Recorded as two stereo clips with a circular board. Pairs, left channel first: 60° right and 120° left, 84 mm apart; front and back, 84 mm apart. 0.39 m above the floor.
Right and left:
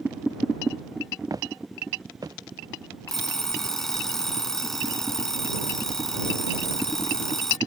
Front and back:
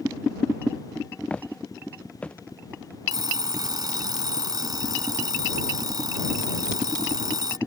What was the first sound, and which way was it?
Footsteps, 75° left.